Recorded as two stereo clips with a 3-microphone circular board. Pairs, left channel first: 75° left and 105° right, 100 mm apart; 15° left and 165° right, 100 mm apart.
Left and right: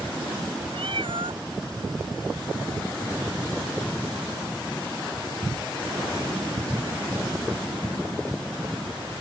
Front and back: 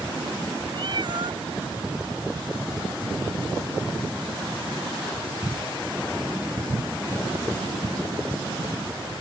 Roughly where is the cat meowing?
Behind right.